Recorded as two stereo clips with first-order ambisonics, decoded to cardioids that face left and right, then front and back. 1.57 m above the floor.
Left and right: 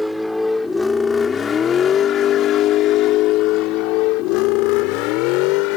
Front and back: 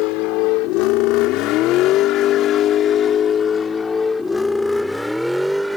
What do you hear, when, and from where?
0.0 s a vehicle: straight ahead; by 5.8 s 95° left